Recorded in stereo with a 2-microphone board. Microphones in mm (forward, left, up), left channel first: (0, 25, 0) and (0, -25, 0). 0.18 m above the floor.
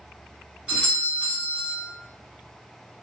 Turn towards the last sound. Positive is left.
turn(degrees=-25)  # may be behind; listen again after turning